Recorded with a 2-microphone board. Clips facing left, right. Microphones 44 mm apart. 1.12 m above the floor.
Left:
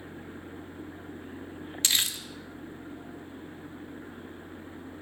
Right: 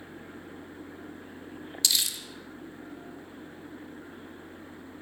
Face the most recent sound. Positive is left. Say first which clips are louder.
# left 1 dB
turn(degrees=45)  # may be behind; listen again after turning